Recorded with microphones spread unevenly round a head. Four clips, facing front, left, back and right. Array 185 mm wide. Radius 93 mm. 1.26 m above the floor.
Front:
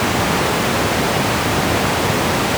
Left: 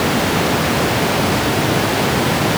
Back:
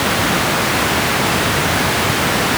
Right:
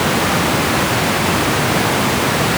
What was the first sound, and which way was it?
Only background noise.